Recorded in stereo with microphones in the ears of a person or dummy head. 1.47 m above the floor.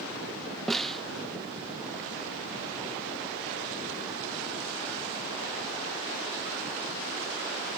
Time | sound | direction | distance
0.7 | a snare drum | 5° right (ahead or behind) | ?